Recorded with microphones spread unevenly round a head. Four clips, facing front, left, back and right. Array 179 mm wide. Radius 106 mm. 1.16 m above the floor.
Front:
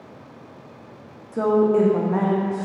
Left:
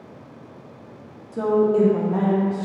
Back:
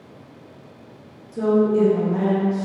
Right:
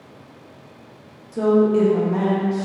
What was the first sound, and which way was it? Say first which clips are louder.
A woman speaking: right 2 dB, even; 15° left.